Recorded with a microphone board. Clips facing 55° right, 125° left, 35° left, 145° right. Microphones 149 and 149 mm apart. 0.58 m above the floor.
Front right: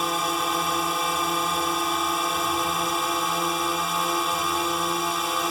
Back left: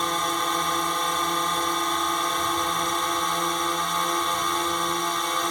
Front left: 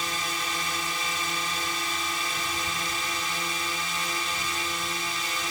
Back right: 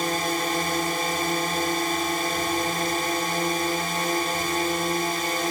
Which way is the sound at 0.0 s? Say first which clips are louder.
Front right 1 dB, back right 8 dB; 140° right.